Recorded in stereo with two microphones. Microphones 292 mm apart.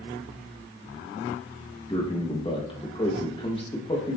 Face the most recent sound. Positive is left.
turn(degrees=20)  # may be behind; listen again after turning